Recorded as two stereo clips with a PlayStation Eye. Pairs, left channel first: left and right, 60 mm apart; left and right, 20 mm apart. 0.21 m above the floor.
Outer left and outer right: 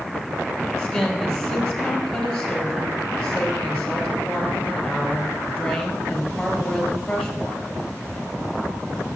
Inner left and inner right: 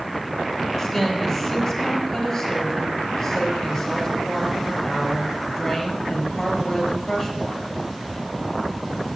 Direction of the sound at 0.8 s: 10° left (ahead or behind).